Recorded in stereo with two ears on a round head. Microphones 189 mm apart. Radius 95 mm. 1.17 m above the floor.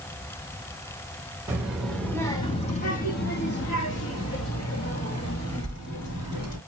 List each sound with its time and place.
1.5 s a child speaking: 10° right (ahead or behind), 1.1 m; by 6.6 s 90° left, 2.5 m